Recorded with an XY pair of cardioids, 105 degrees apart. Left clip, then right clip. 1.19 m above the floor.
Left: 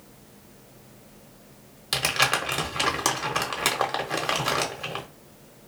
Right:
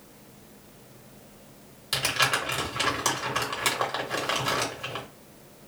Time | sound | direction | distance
1.9 | crumpling | 35° left | 1.1 m